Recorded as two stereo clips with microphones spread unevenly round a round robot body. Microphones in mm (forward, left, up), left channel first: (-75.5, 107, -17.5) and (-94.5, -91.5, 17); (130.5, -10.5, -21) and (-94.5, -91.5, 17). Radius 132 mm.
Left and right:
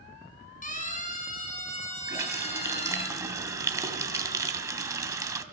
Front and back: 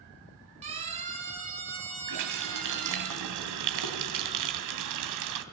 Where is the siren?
130° left, 7.5 m; by 3.1 s 145° left, 7 m.